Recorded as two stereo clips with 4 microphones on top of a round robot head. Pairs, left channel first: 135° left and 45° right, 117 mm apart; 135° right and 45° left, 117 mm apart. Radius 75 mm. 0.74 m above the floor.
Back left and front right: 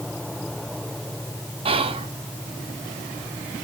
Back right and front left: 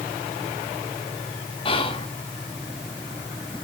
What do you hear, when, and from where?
1.6 s whispering: 85° right, 1.5 m